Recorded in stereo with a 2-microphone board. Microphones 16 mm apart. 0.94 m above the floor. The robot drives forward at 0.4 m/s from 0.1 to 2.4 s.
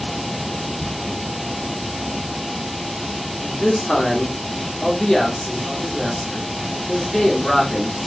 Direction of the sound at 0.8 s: 75° right (ahead or behind).